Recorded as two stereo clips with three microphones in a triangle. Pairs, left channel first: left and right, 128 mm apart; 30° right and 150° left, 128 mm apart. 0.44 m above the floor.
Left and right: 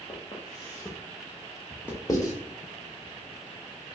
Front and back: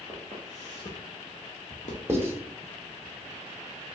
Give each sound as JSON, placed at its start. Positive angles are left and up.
{"t": 0.1, "sound": "footsteps", "azimuth_deg": 30, "distance_m": 1.9}
{"t": 2.1, "sound": "writing", "azimuth_deg": 100, "distance_m": 1.0}